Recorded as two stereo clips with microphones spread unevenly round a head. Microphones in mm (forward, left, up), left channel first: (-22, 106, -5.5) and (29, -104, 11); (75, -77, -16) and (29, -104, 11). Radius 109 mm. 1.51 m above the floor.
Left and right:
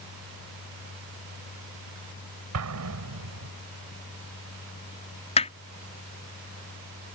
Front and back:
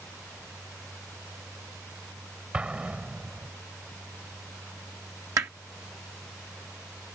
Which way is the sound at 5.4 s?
165° left.